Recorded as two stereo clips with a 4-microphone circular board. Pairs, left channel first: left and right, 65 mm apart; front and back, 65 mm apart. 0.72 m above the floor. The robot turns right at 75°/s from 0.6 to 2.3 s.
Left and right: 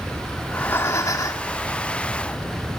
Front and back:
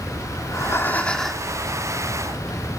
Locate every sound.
0.4 s breathing: 35° left, 1.8 m; by 1.5 s 105° left, 1.8 m